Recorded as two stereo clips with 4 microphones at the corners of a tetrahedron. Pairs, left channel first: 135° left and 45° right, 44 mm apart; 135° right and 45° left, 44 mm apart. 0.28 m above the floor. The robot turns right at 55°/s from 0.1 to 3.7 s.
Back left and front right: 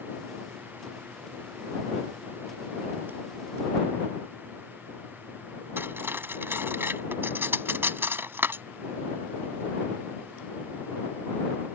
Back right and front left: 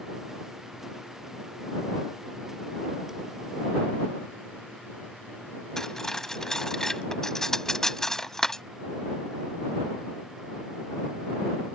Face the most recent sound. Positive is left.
turn(degrees=-55)